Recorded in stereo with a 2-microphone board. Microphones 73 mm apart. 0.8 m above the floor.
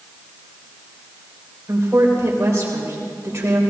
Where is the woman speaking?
40° right (ahead or behind), 3.5 m.